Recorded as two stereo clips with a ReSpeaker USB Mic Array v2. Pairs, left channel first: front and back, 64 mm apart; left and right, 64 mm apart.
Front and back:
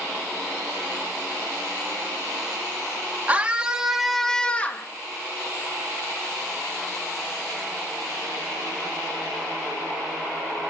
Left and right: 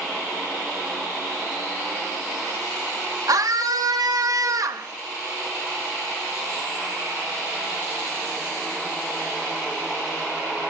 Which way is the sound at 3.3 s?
110° right.